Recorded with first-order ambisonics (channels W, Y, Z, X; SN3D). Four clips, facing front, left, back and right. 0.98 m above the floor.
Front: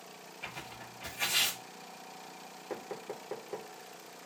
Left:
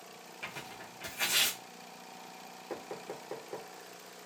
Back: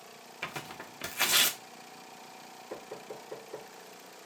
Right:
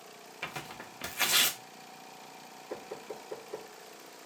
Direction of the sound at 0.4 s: 145° right.